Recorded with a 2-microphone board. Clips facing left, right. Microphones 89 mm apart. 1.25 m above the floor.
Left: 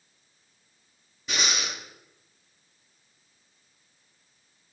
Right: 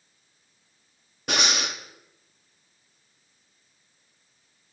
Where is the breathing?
65° right (ahead or behind), 1.1 m.